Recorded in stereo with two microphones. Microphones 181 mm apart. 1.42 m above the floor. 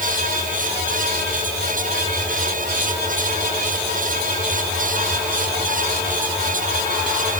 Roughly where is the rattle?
I don't hear a rattle.